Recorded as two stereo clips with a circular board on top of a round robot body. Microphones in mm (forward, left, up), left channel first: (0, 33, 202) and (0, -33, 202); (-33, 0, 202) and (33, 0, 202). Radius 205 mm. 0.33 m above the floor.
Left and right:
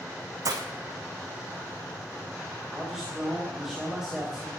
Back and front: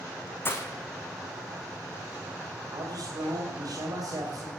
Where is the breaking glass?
120° right, 2.5 m.